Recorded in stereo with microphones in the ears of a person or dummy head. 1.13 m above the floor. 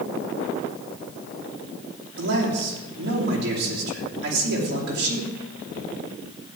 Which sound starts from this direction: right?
A man speaking, at 2.2 s.